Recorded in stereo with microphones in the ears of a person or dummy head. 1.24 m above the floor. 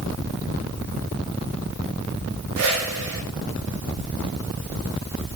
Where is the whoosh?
80° right, 3.5 m.